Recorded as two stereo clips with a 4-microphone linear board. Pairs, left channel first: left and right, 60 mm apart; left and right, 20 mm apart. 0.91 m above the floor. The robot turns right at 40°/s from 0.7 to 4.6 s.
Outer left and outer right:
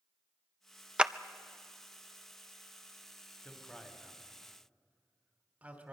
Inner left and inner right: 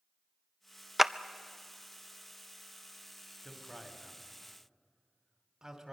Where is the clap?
15° right (ahead or behind), 0.5 m; by 1.1 s 10° right (ahead or behind), 0.5 m.